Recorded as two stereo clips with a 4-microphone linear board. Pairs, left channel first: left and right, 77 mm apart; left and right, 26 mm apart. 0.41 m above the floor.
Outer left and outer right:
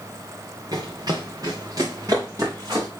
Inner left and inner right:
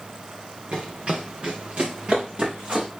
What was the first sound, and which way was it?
Running footsteps, 60° right (ahead or behind).